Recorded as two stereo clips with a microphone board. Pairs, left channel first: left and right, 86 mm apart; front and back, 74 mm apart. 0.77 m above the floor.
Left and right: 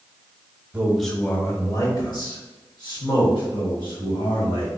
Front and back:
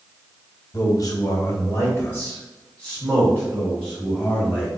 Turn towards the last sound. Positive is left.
turn(degrees=80)